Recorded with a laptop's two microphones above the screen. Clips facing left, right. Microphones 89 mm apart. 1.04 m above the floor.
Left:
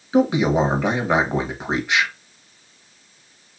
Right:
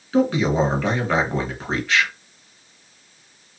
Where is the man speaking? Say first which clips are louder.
Left 1 dB; 15° left (ahead or behind), 1.0 m.